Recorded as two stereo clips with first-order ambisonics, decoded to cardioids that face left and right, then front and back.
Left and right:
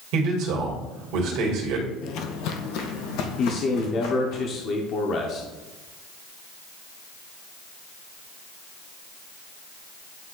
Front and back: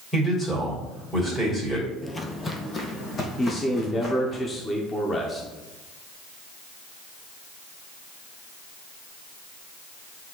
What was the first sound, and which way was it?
A man speaking, 85° right.